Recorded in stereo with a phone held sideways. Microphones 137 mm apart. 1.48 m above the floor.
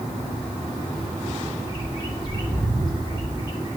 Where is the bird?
30° left (ahead or behind), 1.8 m.